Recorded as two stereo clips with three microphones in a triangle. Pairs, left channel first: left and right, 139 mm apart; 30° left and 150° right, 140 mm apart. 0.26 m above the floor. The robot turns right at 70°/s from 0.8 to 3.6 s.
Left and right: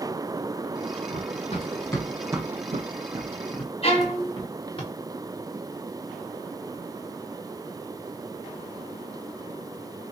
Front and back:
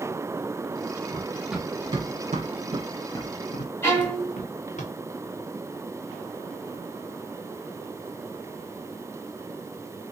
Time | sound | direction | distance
1.1 | running footsteps | 90° left | 1.1 m
3.8 | a violin | 100° left | 1.7 m